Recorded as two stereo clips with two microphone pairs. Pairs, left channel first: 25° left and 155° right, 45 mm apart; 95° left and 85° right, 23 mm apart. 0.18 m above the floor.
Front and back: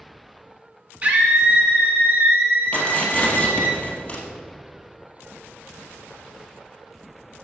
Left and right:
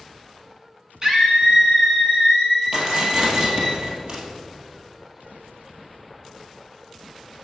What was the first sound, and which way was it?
A scream, 125° right.